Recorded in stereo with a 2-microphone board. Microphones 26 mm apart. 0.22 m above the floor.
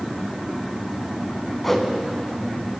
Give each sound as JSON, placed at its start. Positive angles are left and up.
{"t": 1.6, "sound": "a whoosh", "side_deg": 5, "distance_m": 1.0}